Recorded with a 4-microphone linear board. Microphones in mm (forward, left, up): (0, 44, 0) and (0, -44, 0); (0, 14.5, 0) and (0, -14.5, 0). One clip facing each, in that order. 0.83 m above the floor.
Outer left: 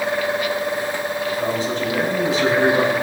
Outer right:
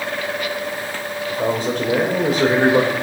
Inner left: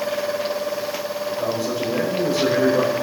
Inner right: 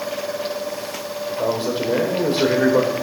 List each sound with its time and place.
1.3 s a man speaking: 55° right (ahead or behind), 3 m